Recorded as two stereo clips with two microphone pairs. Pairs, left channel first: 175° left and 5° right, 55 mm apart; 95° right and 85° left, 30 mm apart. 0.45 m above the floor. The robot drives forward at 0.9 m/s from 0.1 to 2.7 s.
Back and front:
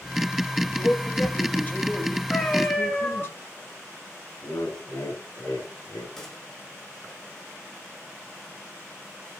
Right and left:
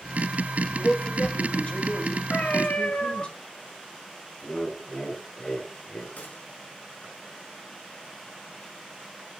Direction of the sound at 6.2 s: 110° right.